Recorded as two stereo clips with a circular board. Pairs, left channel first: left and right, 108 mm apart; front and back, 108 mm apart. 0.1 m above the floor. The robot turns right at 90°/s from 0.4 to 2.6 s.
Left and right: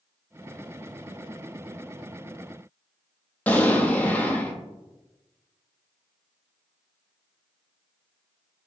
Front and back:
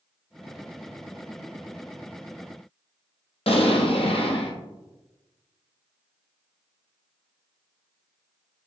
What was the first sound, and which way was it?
An explosion, 15° left.